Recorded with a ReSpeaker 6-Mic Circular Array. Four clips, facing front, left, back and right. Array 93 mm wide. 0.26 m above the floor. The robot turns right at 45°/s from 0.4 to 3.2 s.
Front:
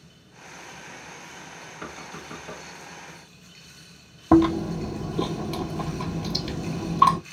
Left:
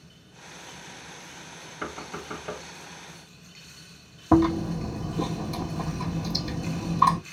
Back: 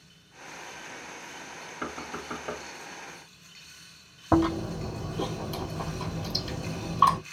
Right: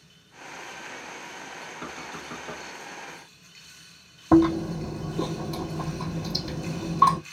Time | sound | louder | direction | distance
1.8 | knocking | left 6 dB, back 3 dB | 110° left | 0.7 m
4.3 | chewing | right 2 dB, front 6 dB | straight ahead | 1.4 m